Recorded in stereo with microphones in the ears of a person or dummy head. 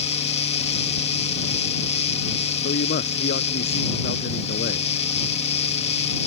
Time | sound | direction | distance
0.0 | a fan | 30° left (ahead or behind) | ?
2.6 | a man speaking | 45° left (ahead or behind) | ?